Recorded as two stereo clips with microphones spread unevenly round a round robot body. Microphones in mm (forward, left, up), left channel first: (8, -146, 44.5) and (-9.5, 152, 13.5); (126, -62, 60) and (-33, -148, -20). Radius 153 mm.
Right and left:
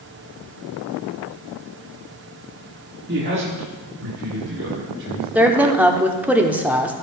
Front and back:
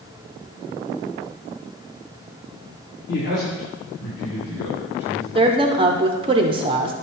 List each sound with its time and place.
3.1 s a man speaking: 80° left, 1.6 m; by 5.2 s 55° left, 3.5 m
5.3 s a woman speaking: 175° left, 1.0 m